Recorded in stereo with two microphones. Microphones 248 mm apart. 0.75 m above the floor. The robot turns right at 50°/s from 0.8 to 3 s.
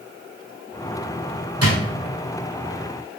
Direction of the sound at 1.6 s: 80° right.